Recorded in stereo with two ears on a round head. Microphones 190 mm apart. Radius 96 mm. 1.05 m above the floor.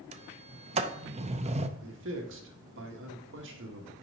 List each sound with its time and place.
0.1 s a sliding door: 30° right (ahead or behind), 0.6 m
1.8 s a man speaking: 65° right (ahead or behind), 1.6 m